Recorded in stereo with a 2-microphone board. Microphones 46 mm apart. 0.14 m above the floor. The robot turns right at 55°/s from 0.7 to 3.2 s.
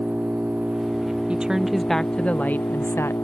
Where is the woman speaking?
25° right; by 3.2 s 80° left.